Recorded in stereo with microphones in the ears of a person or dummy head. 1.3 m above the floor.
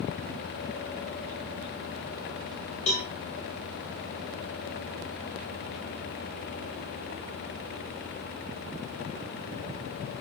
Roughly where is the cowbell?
Left.